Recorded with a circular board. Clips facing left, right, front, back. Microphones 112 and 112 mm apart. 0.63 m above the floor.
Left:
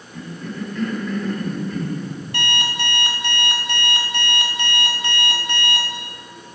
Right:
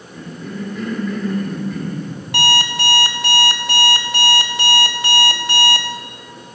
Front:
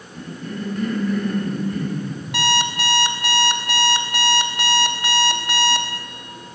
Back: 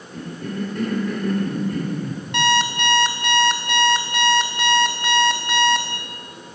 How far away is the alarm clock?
About 0.7 m.